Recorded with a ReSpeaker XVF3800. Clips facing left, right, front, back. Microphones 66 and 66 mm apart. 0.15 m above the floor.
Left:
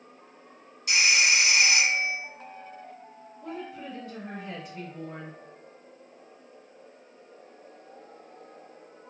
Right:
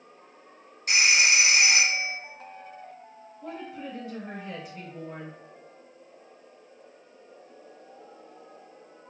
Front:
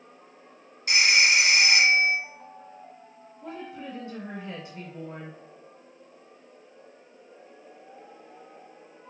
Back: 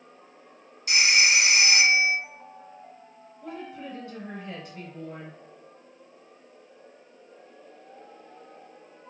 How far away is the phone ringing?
About 1.5 m.